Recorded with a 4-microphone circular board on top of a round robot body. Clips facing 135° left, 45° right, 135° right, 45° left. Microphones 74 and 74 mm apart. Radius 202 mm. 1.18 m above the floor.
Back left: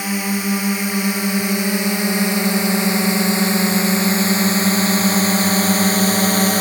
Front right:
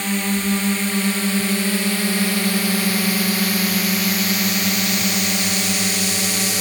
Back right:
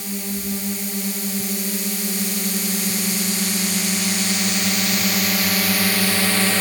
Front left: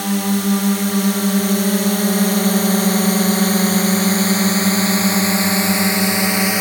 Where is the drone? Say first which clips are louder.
Even, front left 10 dB; 55° left; by 6.6 s 115° left.